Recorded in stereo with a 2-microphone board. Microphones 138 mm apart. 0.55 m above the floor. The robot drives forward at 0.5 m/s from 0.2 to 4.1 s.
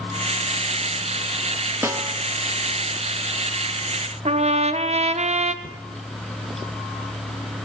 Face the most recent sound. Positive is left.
turn(degrees=-55)  # may be behind; listen again after turning